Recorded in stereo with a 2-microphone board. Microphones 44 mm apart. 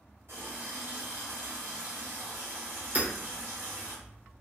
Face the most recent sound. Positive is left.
turn(degrees=-40)  # may be behind; listen again after turning